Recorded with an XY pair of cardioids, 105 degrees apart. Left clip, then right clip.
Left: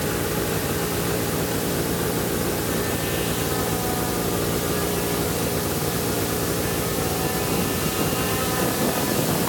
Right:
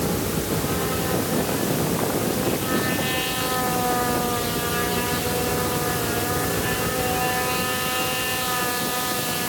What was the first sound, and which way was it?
Only background noise.